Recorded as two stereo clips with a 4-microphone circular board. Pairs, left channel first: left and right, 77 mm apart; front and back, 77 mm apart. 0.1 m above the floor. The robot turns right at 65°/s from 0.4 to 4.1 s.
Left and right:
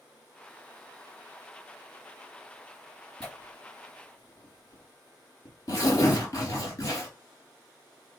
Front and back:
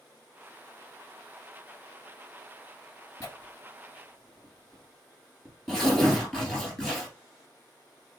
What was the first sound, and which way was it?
Tearing paper, 20° left.